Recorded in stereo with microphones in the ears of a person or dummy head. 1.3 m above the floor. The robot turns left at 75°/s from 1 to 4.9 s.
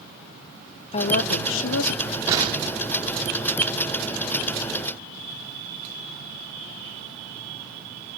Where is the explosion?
15° right (ahead or behind), 1.1 m; by 3.7 s 50° right (ahead or behind), 1.1 m.